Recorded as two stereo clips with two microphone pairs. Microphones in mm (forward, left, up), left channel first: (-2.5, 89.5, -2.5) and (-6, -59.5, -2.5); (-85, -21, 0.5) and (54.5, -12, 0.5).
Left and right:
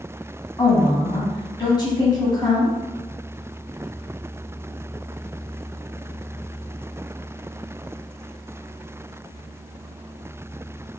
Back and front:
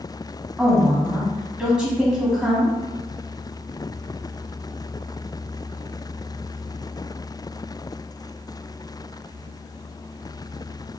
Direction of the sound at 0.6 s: 85° left.